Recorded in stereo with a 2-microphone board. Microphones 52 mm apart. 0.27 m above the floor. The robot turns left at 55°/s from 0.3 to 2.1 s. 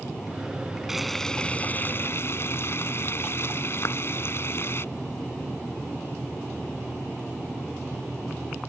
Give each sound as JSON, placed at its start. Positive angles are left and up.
{"t": 0.9, "sound": "frying", "azimuth_deg": -175}
{"t": 3.9, "sound": "a clap", "side_deg": 65}